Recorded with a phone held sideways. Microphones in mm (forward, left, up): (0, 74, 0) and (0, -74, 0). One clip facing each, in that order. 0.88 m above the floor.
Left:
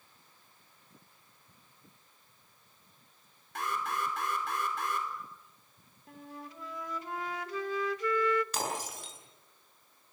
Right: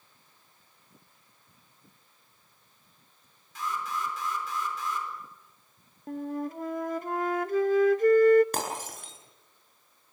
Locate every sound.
3.5 s an alarm: 65° left (ahead or behind), 4.5 m
6.1 s a flute: 50° right (ahead or behind), 0.6 m
8.5 s breaking glass: 55° right (ahead or behind), 8 m